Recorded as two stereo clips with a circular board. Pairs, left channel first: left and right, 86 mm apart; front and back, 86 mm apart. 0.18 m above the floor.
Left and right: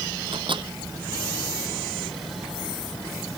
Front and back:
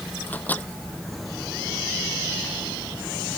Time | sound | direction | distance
0.3 | a microwave | 70° right | ?